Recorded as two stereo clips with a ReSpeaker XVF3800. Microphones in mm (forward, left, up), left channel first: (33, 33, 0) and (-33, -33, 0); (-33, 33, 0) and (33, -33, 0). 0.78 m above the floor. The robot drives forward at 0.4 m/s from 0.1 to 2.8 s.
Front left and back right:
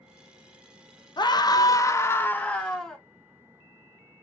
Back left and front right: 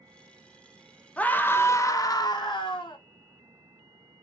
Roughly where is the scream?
Ahead left.